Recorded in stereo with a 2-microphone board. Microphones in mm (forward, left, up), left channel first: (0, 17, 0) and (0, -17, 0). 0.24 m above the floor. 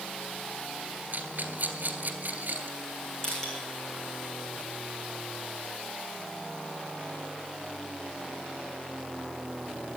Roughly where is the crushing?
Left.